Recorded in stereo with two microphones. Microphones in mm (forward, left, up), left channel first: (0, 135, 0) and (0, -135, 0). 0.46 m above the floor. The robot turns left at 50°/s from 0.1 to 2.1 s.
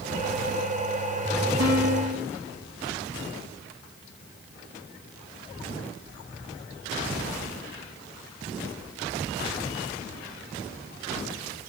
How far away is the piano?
About 2.5 m.